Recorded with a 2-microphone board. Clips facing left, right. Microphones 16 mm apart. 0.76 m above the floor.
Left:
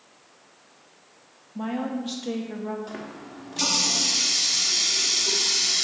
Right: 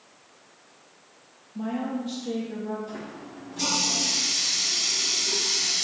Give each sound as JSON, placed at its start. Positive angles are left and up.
{"t": 1.6, "sound": "a woman speaking", "side_deg": 40, "distance_m": 0.5}
{"t": 2.9, "sound": "a running tap", "side_deg": 60, "distance_m": 0.8}